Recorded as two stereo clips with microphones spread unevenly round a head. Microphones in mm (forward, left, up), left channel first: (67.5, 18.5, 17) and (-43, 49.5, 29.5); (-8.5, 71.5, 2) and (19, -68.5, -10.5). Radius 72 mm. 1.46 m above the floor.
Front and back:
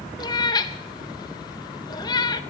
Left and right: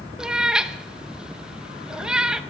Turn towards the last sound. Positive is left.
turn(degrees=10)